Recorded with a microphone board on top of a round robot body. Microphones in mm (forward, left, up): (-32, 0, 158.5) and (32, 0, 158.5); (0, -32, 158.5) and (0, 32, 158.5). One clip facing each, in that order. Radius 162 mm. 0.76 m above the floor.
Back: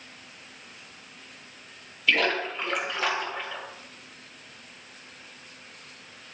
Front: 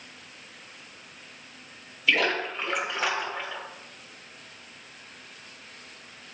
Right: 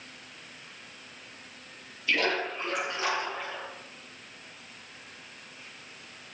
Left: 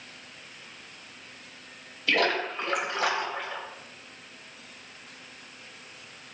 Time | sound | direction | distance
2.1 | a splash | 90° left | 4 m